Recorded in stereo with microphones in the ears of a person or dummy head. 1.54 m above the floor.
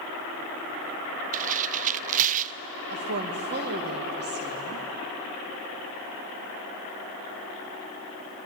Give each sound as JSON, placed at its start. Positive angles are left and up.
{"t": 1.3, "sound": "tearing paper", "side_deg": -40, "distance_m": 0.5}
{"t": 2.9, "sound": "a woman speaking", "side_deg": -45, "distance_m": 2.0}